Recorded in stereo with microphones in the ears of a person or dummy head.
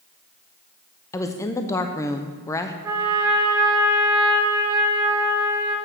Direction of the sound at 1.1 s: 15° left (ahead or behind).